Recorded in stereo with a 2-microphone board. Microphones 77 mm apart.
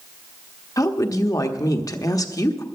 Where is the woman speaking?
50° left (ahead or behind), 1.1 m.